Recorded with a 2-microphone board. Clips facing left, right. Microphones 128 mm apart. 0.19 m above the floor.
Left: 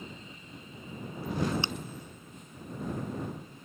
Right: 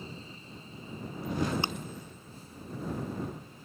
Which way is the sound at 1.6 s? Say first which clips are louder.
Right 2 dB; 45° right (ahead or behind).